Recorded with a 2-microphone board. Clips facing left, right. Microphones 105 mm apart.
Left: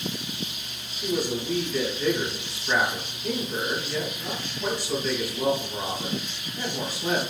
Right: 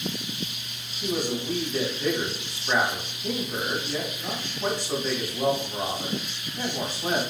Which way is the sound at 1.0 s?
25° right (ahead or behind).